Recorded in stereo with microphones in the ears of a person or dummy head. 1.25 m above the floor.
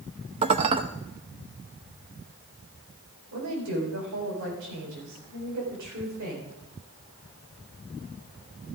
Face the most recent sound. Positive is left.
turn(degrees=-70)  # may be behind; listen again after turning